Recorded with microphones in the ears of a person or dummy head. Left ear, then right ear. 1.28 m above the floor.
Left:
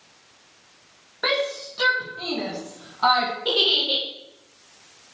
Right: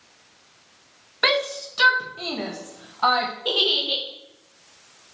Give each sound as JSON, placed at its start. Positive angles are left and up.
{"t": 1.2, "sound": "a shout", "side_deg": -65, "distance_m": 1.4}
{"t": 3.5, "sound": "a giggle", "side_deg": -15, "distance_m": 1.5}